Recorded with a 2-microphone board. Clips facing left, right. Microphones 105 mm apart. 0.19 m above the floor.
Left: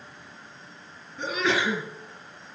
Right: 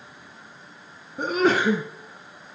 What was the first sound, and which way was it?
A sneeze, 45° right (ahead or behind).